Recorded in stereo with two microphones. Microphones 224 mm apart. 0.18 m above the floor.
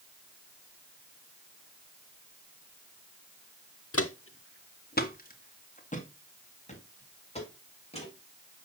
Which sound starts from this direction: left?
Footsteps, at 3.9 s.